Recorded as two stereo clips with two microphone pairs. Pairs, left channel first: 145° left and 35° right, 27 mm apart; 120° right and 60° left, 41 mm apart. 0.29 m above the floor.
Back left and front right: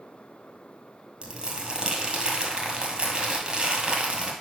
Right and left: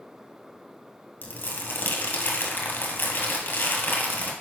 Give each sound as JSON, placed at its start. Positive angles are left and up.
{"t": 1.2, "sound": "crumpling", "azimuth_deg": -80, "distance_m": 1.8}